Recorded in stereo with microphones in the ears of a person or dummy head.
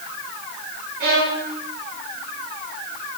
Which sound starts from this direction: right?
A violin, at 1.0 s.